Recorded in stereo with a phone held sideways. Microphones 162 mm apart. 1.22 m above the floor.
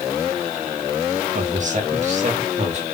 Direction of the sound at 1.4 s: 50° right (ahead or behind).